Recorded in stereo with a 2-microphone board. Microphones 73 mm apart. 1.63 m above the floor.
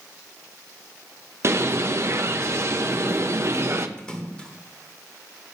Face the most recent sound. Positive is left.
turn(degrees=15)  # may be behind; listen again after turning